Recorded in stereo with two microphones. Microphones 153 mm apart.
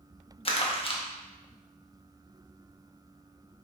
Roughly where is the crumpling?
Left.